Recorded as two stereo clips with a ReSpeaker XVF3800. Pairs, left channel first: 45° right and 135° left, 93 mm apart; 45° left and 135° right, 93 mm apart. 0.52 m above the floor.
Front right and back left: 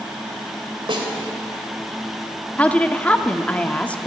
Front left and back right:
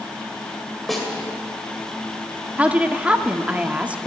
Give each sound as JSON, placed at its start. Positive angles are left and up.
{"t": 0.9, "sound": "a snare drum", "azimuth_deg": 135, "distance_m": 2.5}
{"t": 2.6, "sound": "a woman speaking", "azimuth_deg": -90, "distance_m": 0.6}